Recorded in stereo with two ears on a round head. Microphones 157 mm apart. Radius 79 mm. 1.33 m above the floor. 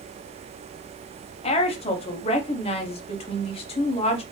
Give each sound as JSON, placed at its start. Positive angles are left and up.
{"t": 1.4, "sound": "a woman speaking", "side_deg": 35, "distance_m": 0.6}